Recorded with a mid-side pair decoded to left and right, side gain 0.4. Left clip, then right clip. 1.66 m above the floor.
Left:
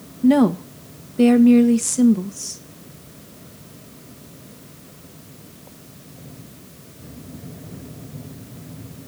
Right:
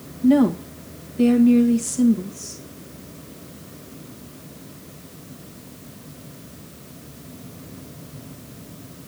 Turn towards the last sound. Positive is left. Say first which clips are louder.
# left 1 dB
turn(degrees=50)